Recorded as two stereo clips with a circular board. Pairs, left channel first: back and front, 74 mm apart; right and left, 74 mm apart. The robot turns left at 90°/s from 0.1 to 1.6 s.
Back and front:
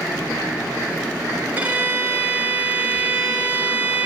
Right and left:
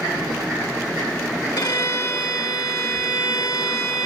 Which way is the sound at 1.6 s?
65° right.